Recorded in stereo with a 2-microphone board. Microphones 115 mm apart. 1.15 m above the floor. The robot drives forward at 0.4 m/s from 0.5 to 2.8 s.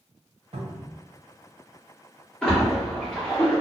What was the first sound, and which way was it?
A cupboard door, 65° right (ahead or behind).